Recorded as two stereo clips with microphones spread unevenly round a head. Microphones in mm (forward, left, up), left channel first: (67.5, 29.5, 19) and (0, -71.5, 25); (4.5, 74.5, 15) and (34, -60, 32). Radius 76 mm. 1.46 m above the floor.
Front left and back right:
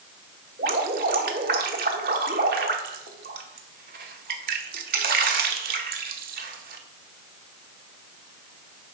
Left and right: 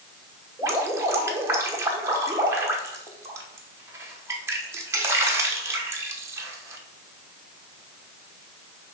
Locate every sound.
0.6 s dripping: 150° right, 1.0 m